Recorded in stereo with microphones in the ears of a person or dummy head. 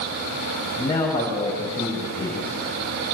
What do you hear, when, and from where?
0.8 s a man speaking: 15° left (ahead or behind), 6.5 m